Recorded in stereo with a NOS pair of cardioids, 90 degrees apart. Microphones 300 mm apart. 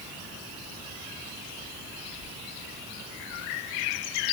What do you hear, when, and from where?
Only background noise.